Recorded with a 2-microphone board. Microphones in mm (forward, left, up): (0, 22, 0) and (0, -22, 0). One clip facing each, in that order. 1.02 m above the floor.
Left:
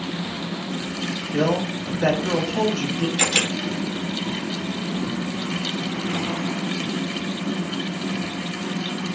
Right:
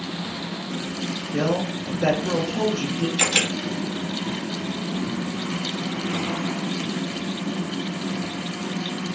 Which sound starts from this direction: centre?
A camera shutter, at 3.2 s.